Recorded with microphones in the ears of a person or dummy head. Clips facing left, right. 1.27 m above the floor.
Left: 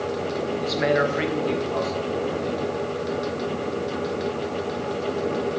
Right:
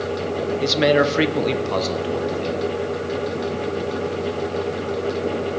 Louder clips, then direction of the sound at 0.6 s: Right 5 dB; 35° right (ahead or behind).